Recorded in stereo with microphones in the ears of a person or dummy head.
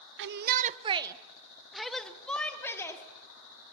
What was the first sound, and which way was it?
A shout, 55° right (ahead or behind).